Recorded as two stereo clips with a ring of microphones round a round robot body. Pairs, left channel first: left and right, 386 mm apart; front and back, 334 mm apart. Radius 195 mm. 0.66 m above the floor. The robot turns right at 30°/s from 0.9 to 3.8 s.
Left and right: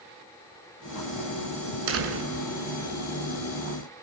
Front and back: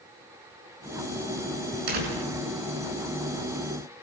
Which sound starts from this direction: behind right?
A door slam, at 1.9 s.